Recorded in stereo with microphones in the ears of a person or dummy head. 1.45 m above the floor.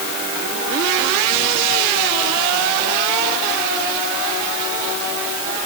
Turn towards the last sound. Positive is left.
No sound to turn to.